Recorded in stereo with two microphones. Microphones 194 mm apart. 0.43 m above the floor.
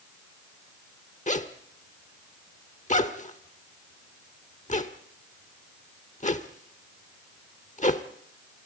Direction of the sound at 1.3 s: 40° left (ahead or behind).